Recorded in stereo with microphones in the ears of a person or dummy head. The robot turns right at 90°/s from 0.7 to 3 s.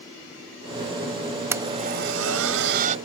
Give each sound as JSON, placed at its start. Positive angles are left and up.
{"t": 1.5, "sound": "a blender", "side_deg": -15}